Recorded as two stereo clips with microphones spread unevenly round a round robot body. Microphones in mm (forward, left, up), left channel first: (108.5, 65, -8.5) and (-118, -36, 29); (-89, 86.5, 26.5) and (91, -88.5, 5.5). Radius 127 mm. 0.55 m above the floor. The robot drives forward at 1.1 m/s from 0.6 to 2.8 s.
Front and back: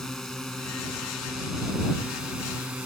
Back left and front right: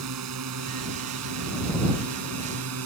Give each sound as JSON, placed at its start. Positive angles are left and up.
{"t": 0.0, "sound": "a drone", "azimuth_deg": -65}